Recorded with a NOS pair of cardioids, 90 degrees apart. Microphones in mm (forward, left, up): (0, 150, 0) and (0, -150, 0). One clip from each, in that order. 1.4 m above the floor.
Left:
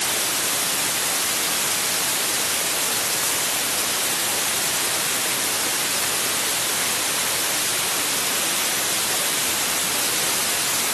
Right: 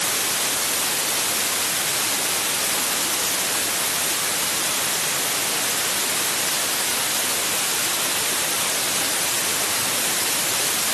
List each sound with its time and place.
Only background noise.